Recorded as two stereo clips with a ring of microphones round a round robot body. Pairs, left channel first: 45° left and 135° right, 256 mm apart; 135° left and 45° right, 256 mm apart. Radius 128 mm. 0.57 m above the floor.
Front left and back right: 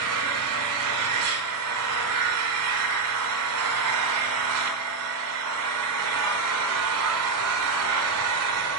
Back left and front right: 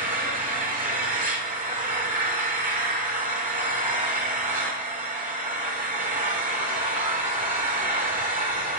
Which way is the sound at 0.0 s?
105° right.